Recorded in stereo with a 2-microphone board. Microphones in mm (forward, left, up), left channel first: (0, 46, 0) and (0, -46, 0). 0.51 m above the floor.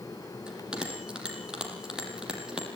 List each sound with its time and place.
0.5 s a bell: 10° right (ahead or behind), 6 m